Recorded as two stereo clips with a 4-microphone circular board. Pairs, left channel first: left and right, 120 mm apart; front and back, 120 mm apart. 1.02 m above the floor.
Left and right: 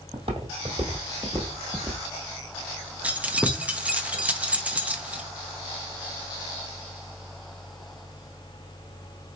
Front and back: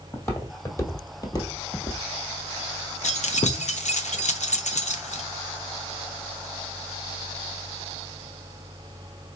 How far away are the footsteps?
About 1.7 m.